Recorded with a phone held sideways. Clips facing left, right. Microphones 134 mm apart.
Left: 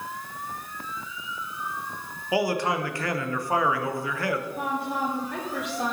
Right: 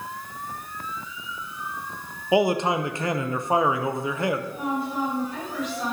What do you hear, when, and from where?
2.3 s a man speaking: 20° right (ahead or behind), 0.7 m
4.6 s a woman speaking: 65° left (ahead or behind), 3 m